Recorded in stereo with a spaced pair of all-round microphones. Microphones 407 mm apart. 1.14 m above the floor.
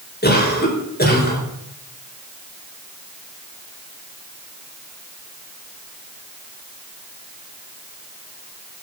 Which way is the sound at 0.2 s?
25° left (ahead or behind).